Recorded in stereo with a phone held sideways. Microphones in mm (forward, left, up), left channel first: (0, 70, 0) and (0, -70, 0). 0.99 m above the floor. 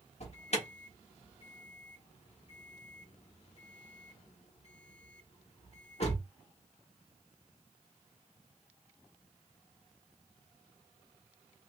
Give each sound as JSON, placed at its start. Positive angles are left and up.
{"t": 0.2, "sound": "an alarm", "side_deg": 50, "distance_m": 1.2}